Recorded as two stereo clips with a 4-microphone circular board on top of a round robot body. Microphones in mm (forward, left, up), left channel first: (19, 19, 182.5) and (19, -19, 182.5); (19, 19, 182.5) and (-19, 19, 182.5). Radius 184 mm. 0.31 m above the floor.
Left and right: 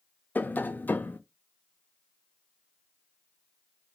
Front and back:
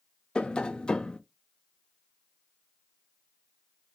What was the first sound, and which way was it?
Tapping, 65° left.